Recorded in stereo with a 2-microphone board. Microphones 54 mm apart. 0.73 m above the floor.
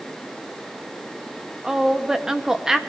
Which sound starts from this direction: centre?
A woman speaking, at 1.6 s.